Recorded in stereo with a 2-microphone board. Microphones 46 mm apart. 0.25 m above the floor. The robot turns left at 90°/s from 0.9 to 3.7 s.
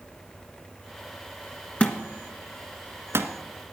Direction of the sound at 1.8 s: 35° left (ahead or behind).